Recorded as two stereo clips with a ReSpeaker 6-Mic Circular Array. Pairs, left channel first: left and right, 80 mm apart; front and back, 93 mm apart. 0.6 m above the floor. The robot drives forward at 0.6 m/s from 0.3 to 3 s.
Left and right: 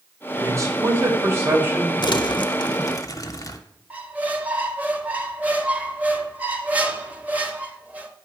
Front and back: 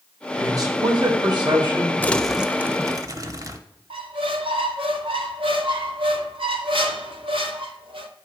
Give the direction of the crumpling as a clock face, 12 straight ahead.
10 o'clock.